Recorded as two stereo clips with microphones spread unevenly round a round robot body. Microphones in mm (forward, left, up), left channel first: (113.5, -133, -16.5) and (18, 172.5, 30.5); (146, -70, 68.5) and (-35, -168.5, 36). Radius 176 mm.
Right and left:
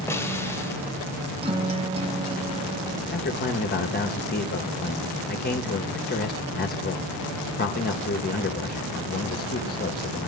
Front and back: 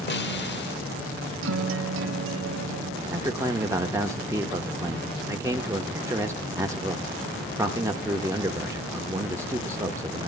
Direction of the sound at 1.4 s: 175° right.